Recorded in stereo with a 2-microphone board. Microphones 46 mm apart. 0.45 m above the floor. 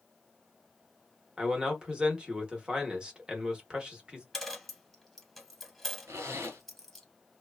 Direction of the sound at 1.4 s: 15° right (ahead or behind).